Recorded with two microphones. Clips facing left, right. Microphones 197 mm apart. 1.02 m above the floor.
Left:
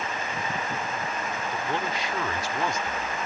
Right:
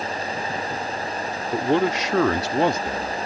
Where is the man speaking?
75° right (ahead or behind); by 3.3 s 50° right (ahead or behind).